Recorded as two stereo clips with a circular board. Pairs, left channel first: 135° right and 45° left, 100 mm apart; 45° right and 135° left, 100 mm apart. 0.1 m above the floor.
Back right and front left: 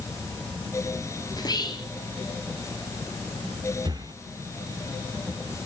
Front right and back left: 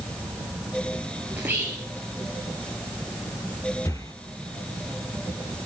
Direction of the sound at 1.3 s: 160° right.